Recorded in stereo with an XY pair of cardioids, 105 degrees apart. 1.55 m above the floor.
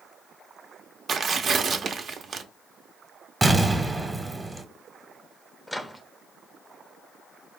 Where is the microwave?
10° left, 0.6 m.